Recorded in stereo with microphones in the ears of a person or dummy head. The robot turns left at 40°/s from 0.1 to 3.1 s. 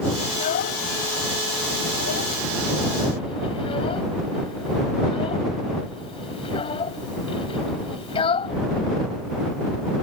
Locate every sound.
0.3 s a child speaking: 35° left (ahead or behind); by 8.6 s 30° left (ahead or behind)